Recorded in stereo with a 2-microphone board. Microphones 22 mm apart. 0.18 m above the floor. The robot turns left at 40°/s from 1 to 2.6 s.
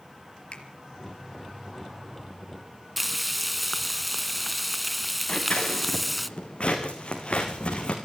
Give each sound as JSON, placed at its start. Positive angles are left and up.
{"t": 0.5, "sound": "a finger snap", "side_deg": 45, "distance_m": 3.5}
{"t": 3.0, "sound": "frying", "side_deg": -5, "distance_m": 0.9}
{"t": 5.3, "sound": "scissors", "side_deg": 50, "distance_m": 4.0}